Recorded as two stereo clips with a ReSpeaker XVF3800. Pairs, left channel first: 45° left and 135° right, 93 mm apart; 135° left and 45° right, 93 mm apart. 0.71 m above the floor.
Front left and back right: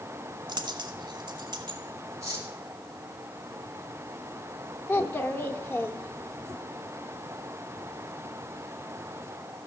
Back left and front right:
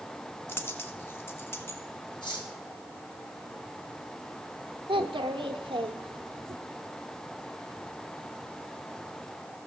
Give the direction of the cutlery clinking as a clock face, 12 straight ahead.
6 o'clock.